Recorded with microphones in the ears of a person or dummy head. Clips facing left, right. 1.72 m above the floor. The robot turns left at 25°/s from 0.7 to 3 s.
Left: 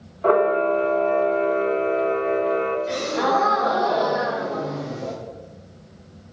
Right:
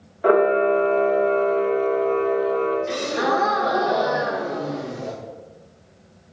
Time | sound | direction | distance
0.2 | a camera shutter | 160° right | 0.5 m
2.9 | a gasp | 5° right (ahead or behind) | 0.7 m